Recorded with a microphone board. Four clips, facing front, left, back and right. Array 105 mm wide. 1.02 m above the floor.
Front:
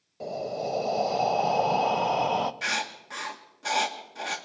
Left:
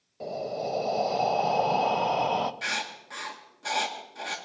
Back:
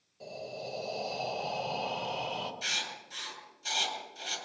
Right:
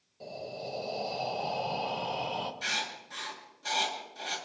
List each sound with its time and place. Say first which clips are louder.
0.2 s breathing: left 8 dB, front 10 dB; 35° left, 0.7 m
2.6 s writing: left 3 dB, front 8 dB; 20° left, 1.8 m